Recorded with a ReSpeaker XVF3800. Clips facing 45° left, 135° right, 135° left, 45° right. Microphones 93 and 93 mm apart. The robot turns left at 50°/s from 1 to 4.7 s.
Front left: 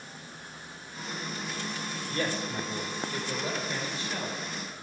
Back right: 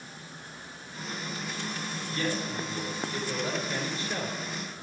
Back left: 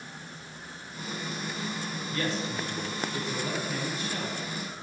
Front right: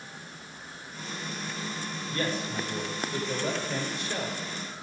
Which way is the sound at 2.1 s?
5° left.